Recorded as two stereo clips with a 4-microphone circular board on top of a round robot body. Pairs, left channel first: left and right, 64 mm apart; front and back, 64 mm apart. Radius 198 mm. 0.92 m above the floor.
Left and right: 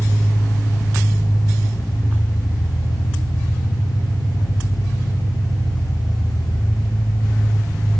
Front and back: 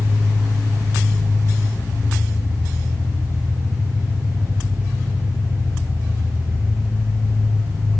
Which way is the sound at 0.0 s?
115° left.